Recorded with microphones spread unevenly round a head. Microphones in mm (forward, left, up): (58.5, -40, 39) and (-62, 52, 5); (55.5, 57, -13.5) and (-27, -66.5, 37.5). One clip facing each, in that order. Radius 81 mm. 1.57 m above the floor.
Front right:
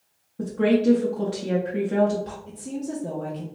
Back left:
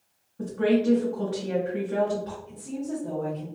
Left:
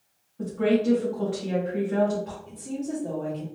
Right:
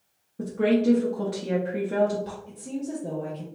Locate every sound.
0.4 s a woman speaking: 80° right, 0.9 m
2.5 s a woman speaking: 55° right, 0.9 m